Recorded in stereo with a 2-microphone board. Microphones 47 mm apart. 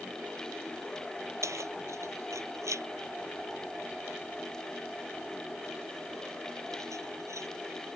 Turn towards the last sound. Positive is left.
turn(degrees=-85)